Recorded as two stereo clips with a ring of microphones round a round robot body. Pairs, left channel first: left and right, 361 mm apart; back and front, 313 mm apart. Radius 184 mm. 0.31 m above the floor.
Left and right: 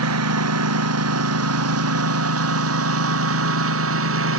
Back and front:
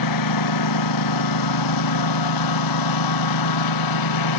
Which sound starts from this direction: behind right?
A lawn mower, at 0.0 s.